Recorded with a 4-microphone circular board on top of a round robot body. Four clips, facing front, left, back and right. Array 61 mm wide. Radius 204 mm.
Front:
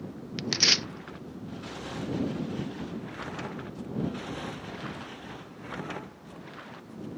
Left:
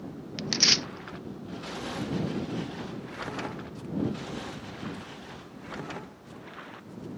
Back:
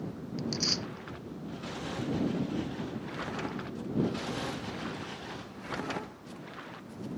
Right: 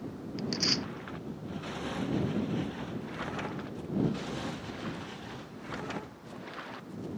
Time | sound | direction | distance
0.4 | tearing paper | 30° left | ?